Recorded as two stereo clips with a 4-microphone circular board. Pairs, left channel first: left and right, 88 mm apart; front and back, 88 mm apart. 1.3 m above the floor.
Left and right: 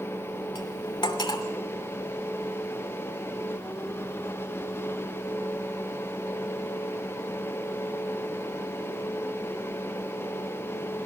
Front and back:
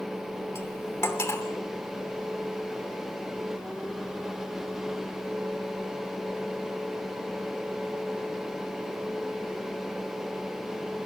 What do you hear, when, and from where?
0.6 s cutlery clinking: 60° left, 3 m